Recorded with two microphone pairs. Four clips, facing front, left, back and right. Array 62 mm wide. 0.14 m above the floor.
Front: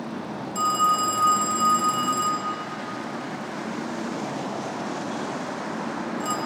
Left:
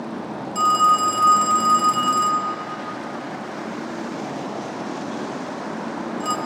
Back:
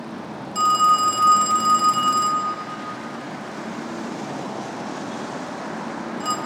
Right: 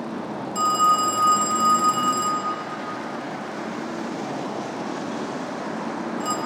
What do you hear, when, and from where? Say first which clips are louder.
0.6 s a phone ringing: left 3 dB, back 5 dB; 170° left, 0.8 m